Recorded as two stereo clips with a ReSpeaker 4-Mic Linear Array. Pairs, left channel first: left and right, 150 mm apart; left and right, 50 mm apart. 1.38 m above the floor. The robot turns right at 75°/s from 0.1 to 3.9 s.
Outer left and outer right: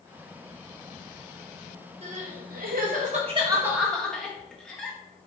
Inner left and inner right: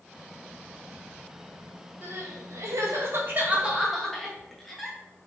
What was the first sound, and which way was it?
Crying, 40° right (ahead or behind).